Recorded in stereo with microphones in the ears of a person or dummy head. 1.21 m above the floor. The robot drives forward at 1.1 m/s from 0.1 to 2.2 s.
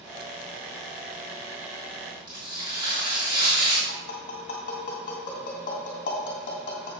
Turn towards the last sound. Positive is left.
turn(degrees=40)  # may be behind; listen again after turning